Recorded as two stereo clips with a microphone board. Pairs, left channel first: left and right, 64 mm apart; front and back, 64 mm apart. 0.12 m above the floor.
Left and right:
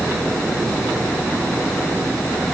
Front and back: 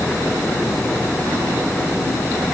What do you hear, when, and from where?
Only background noise.